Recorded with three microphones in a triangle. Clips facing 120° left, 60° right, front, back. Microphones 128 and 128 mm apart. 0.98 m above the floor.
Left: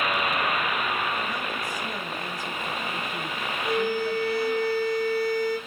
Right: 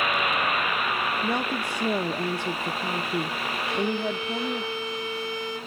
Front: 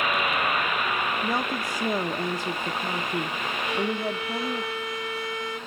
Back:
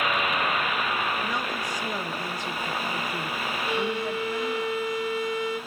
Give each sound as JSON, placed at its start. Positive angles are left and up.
{"t": 1.2, "sound": "a woman speaking", "azimuth_deg": -60, "distance_m": 0.6}
{"t": 3.6, "sound": "a violin", "azimuth_deg": 75, "distance_m": 4.5}